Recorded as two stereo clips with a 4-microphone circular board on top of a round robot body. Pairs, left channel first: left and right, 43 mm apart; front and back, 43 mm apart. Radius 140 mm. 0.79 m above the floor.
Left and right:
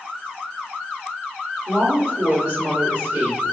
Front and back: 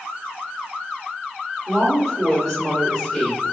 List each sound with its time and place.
1.7 s a woman speaking: 90° right, 1.9 m